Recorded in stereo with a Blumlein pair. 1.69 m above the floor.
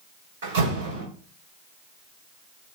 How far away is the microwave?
I don't hear a microwave.